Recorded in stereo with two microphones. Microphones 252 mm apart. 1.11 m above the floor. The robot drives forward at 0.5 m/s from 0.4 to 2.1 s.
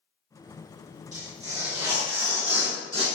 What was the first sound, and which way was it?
Tearing paper, 30° right (ahead or behind).